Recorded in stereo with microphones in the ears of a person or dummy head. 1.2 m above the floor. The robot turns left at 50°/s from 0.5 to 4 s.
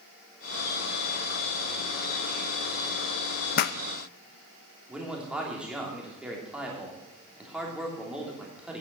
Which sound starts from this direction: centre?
A man speaking, at 4.9 s.